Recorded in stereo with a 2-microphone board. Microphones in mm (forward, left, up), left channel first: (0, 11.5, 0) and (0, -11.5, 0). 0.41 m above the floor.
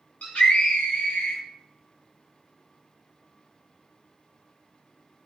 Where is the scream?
75° left (ahead or behind), 4.5 m; by 1.4 s 70° left (ahead or behind), 4.5 m.